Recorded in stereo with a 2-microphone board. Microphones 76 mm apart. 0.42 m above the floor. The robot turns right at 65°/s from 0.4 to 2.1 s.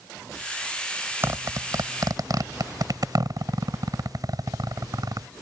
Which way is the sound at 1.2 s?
35° right (ahead or behind).